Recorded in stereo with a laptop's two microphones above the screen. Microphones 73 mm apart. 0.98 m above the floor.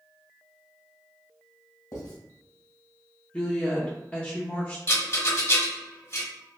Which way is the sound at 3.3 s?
25° left (ahead or behind).